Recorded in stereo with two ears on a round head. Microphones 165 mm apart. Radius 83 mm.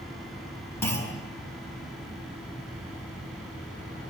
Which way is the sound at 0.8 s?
15° left (ahead or behind).